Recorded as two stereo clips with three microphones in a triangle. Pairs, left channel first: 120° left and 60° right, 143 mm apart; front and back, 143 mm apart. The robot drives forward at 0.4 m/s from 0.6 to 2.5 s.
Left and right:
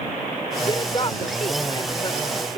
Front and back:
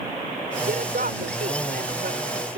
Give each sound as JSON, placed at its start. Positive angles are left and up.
{"t": 0.6, "sound": "a woman speaking", "azimuth_deg": 175}